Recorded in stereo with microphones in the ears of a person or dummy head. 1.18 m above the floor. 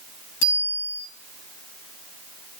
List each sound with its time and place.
0.4 s a bicycle bell: 65° left (ahead or behind), 5.5 m